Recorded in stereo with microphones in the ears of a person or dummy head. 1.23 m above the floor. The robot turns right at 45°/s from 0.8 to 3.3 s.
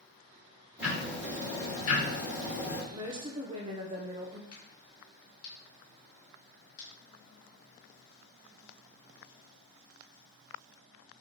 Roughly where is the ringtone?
No ringtone in this recording.